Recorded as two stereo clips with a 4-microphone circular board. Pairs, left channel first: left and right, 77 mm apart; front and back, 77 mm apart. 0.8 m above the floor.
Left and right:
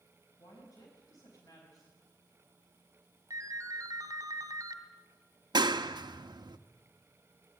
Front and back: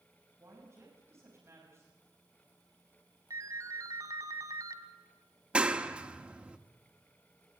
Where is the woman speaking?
125° left, 5.5 m.